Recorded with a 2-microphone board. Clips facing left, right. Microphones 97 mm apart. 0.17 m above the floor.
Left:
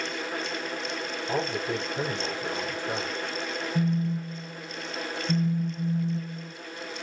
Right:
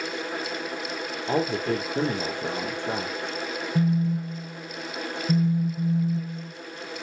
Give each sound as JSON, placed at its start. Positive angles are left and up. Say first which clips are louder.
{"t": 1.3, "sound": "a man speaking", "louder": "right 5 dB", "side_deg": -60, "distance_m": 4.0}
{"t": 3.8, "sound": "a phone buzzing", "louder": "right 4 dB", "side_deg": -15, "distance_m": 0.9}